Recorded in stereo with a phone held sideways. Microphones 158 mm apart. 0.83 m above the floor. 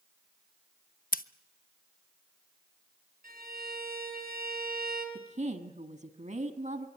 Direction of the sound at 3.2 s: 60° right (ahead or behind).